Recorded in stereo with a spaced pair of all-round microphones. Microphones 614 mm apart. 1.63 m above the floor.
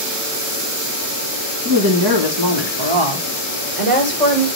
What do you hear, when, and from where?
1.6 s a woman speaking: 30° right (ahead or behind), 2.0 m; by 4.5 s 65° right (ahead or behind), 2.5 m